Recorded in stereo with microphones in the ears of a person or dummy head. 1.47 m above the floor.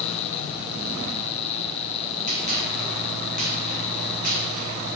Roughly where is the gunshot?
Right.